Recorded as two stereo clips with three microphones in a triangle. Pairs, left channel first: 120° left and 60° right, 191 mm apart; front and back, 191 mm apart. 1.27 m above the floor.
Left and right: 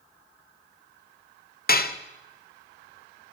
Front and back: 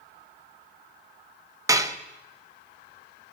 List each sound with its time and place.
1.7 s dishes clattering: 115° left, 0.6 m